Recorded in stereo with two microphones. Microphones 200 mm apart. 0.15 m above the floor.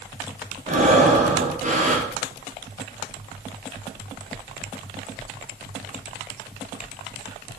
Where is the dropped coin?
I don't hear a dropped coin.